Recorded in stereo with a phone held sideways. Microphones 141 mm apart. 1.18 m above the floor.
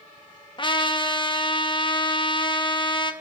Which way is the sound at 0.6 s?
35° left (ahead or behind).